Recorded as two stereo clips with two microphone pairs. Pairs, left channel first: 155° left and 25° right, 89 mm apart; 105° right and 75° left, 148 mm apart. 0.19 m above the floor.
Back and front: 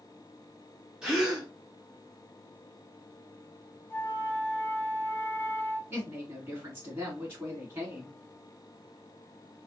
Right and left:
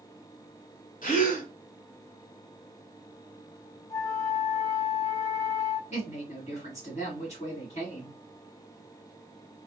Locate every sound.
1.0 s a gasp: 105° right, 1.7 m
3.9 s a flute: 155° right, 0.5 m
5.9 s a woman speaking: 80° right, 2 m